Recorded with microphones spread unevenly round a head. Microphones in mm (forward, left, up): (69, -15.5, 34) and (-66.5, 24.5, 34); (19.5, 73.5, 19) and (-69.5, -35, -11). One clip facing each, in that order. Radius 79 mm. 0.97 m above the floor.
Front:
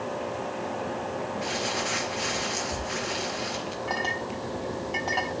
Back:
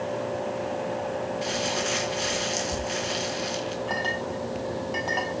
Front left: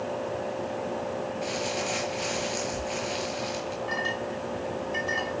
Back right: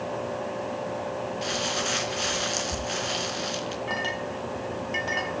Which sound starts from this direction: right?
A clink, at 3.9 s.